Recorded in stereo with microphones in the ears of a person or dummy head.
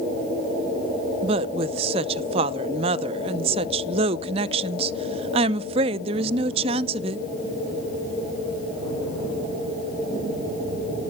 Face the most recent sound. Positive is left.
turn(degrees=-40)  # may be behind; listen again after turning